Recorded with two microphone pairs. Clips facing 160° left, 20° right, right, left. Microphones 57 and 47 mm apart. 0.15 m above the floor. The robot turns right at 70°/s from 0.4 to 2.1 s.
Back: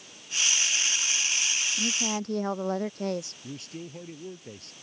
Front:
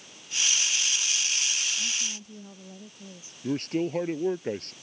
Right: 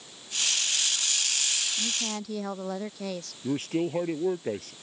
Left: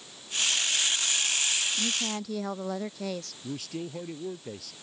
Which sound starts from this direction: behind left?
A woman speaking, at 1.8 s.